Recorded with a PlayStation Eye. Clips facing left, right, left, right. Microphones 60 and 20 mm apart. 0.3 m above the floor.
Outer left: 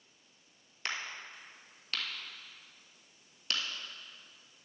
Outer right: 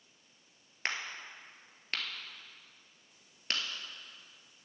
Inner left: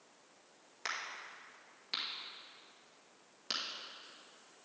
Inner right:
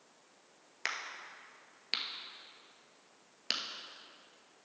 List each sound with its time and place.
0.8 s a crack: 40° right (ahead or behind), 1.2 m